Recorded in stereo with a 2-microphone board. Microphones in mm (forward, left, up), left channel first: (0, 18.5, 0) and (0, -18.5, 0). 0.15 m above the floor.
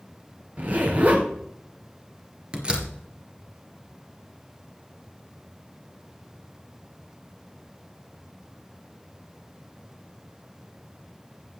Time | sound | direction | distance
0.6 | a zipper | 45° right (ahead or behind) | 2.5 m
2.5 | a door slam | 25° right (ahead or behind) | 2 m